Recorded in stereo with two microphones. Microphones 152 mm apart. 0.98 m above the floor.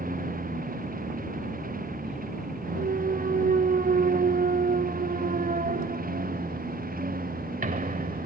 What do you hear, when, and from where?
0.0 s a lawn mower: 65° right (ahead or behind); by 8.3 s 70° right (ahead or behind)
2.8 s a clunk: 65° right (ahead or behind)